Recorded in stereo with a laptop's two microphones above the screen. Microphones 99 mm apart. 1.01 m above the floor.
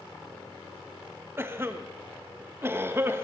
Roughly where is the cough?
Right.